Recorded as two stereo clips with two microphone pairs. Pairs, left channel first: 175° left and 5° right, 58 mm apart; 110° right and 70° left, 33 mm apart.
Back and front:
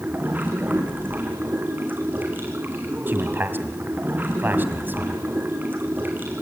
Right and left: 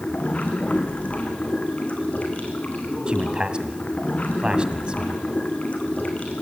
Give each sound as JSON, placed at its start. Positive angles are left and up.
{"t": 0.0, "sound": "running water", "azimuth_deg": -60, "distance_m": 3.0}
{"t": 3.1, "sound": "a man speaking", "azimuth_deg": 30, "distance_m": 1.8}